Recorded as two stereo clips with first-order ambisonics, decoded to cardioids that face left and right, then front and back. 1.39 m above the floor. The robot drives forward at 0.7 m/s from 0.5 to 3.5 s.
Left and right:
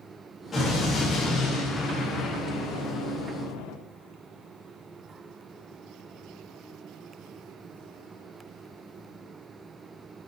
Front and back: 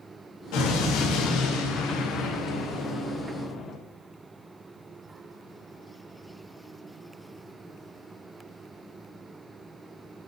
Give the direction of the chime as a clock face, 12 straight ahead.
I don't hear a chime.